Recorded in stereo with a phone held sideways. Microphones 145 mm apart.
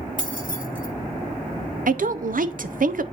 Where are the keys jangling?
65° left (ahead or behind), 1.9 m.